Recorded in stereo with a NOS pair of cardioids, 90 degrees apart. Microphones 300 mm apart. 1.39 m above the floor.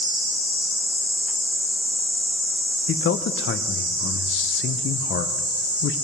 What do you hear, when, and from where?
2.9 s a man speaking: 45° left, 0.7 m